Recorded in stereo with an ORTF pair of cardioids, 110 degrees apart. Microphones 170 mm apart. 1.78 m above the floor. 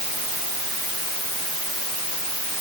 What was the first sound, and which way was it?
Only background noise.